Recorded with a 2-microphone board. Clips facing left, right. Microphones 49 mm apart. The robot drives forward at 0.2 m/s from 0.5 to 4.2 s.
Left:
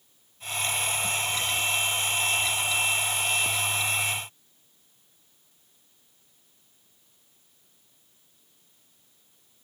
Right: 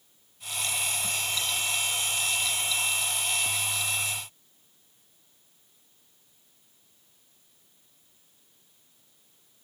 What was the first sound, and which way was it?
Only background noise.